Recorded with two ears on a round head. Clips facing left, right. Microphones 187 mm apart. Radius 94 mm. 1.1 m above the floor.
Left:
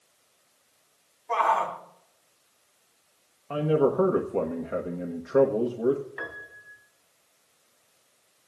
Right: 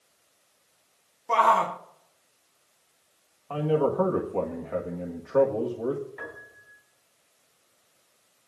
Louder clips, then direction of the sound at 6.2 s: Left 1 dB; 65° left (ahead or behind).